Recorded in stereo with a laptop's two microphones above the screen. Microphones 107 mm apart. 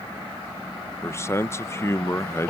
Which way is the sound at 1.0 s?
25° left (ahead or behind).